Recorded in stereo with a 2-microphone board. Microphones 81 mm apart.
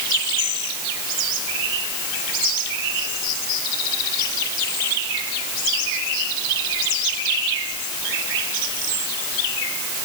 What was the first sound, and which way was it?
Only background noise.